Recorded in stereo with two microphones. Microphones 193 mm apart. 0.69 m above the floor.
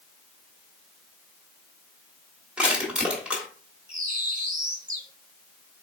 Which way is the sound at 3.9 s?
45° right (ahead or behind).